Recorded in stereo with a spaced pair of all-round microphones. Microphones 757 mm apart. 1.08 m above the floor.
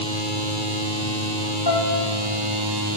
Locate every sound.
1.7 s a piano: 30° left (ahead or behind), 7.5 m